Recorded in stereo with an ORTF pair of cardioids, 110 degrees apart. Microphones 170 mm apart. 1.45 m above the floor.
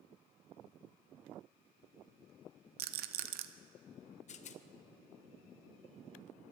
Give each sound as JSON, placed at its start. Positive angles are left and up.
{"t": 2.8, "sound": "a rattle", "azimuth_deg": -65, "distance_m": 0.8}
{"t": 4.3, "sound": "a rattle", "azimuth_deg": 45, "distance_m": 0.8}